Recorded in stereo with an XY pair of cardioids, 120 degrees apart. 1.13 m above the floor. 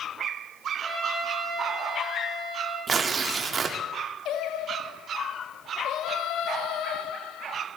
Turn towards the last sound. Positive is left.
turn(degrees=70)